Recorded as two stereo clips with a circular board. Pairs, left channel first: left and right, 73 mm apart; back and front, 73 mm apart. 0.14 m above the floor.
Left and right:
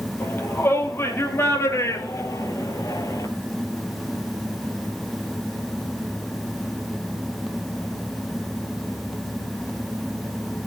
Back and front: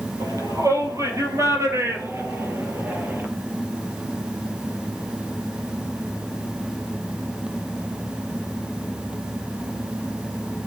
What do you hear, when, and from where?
0.2 s a shout: 30° left, 4.5 m; by 3.3 s 60° left, 3.5 m